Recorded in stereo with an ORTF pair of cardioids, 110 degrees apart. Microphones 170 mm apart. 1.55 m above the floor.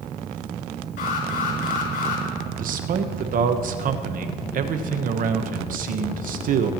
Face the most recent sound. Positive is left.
turn(degrees=-55)